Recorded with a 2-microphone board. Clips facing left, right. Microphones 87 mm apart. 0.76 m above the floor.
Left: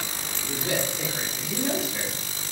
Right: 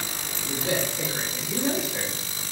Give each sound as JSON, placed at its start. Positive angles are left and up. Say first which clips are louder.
{"t": 0.4, "sound": "a man speaking", "louder": "right 1 dB", "side_deg": -20, "distance_m": 3.5}